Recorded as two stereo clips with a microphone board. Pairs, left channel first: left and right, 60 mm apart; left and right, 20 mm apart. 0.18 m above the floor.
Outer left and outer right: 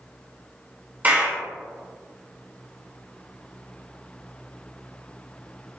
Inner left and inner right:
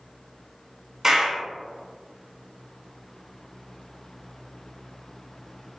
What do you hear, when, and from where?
1.0 s a clap: 35° right (ahead or behind), 1.4 m